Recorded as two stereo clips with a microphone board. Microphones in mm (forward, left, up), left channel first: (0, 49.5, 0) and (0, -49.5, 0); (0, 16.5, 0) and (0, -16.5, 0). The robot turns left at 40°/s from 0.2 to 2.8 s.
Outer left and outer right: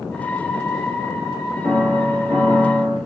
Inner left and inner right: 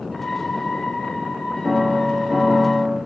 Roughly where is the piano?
Ahead.